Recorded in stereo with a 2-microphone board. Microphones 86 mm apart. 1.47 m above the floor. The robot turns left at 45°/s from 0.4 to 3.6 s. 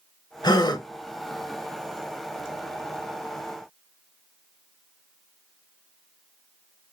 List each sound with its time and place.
0.4 s a gasp: 50° left (ahead or behind), 0.8 m